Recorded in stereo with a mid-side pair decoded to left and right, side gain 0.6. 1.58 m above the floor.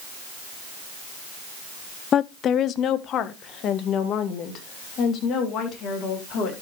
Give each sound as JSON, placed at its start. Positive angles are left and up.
{"t": 2.1, "sound": "a woman speaking", "azimuth_deg": 45, "distance_m": 0.5}